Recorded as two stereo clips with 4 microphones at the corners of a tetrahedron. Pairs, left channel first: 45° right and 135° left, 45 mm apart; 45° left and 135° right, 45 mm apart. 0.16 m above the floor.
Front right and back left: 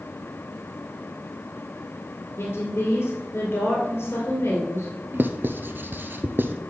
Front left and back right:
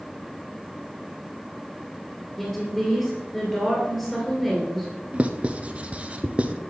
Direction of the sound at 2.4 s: 30° right.